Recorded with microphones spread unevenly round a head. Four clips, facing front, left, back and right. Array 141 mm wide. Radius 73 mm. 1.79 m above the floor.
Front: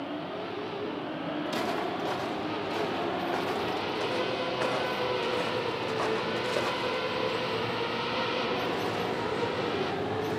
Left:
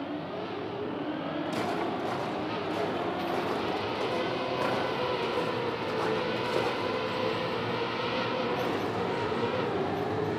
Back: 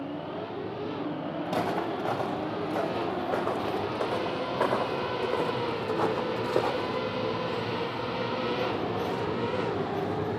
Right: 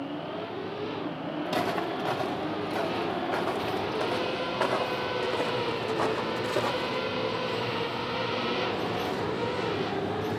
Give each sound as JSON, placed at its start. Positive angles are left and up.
{"t": 1.4, "sound": "footsteps", "azimuth_deg": -160, "distance_m": 6.0}